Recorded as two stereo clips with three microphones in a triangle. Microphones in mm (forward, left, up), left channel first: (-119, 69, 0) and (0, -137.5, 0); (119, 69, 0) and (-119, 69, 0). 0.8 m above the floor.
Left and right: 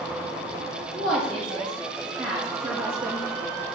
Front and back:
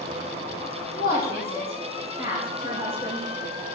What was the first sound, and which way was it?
A woman speaking, 35° right.